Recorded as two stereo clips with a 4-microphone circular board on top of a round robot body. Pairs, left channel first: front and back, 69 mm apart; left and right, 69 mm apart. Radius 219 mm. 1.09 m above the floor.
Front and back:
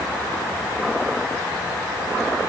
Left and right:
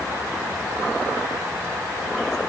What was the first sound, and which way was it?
Only background noise.